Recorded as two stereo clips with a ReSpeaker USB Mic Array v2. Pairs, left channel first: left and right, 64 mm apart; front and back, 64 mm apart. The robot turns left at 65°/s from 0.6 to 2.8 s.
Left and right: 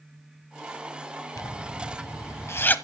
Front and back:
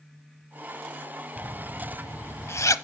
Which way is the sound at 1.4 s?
120° left.